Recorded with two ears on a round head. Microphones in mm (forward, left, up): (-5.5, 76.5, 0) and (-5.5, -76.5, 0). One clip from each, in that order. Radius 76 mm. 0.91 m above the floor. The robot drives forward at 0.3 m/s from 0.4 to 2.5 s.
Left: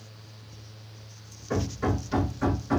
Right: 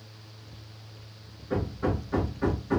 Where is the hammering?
80° left, 2.5 m.